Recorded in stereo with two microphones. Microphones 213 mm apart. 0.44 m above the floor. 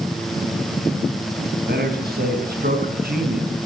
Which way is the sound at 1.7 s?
50° right (ahead or behind).